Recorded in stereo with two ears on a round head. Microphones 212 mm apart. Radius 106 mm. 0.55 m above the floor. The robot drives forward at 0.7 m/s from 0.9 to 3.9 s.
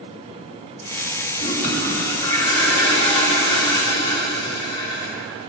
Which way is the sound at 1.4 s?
30° left (ahead or behind).